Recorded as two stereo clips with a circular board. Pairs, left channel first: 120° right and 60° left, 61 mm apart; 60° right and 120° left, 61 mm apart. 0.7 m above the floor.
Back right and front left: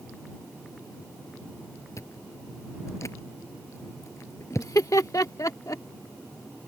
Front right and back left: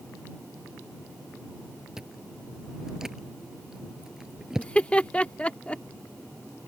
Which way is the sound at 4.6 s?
125° right.